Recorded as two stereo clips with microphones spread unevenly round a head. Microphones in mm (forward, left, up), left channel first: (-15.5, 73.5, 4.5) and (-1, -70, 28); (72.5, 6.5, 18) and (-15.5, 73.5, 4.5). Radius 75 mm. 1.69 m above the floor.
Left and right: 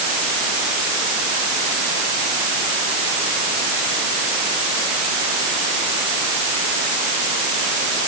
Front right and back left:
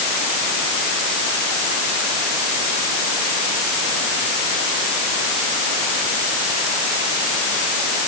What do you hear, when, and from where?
Only background noise.